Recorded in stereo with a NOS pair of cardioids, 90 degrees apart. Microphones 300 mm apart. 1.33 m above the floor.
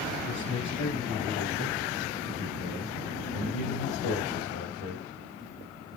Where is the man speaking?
45° left, 7.5 m; by 5.0 s 55° left, 4.5 m.